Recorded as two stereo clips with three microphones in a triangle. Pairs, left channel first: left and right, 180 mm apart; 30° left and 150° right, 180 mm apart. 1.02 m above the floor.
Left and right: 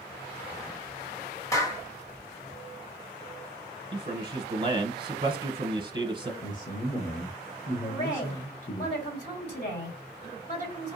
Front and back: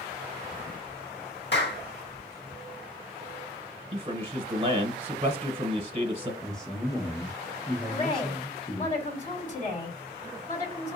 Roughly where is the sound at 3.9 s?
Behind right.